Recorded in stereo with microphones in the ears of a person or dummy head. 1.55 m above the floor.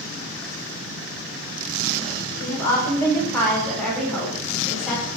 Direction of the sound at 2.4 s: 10° left (ahead or behind).